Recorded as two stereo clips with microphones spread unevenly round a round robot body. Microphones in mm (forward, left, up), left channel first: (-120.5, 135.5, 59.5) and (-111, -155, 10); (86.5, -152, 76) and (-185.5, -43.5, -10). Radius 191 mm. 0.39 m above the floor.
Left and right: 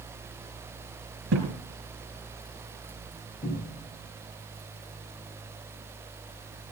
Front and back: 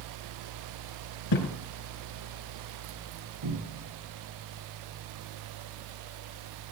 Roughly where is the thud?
Ahead right.